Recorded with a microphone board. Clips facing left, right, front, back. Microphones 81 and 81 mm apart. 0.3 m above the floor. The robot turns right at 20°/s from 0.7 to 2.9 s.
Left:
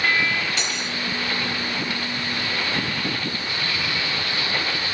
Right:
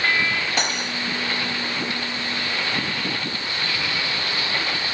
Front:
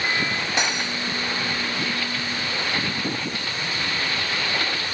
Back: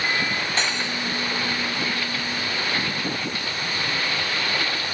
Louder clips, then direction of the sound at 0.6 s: Right 3 dB, front 1 dB; 75° right.